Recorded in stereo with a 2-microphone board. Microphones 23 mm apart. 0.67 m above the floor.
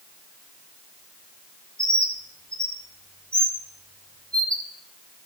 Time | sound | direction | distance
1.8 | a bird | 45° left (ahead or behind) | 3 m